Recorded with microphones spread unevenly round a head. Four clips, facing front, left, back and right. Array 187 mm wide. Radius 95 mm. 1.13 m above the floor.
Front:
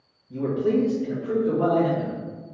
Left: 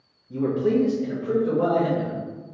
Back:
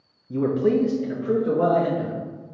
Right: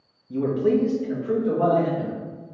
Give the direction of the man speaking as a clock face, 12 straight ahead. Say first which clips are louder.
Right 1 dB, back 2 dB; 6 o'clock.